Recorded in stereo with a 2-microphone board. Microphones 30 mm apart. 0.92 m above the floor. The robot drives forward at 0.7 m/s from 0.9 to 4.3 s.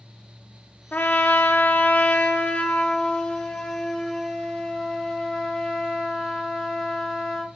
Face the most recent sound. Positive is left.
turn(degrees=25)  # may be behind; listen again after turning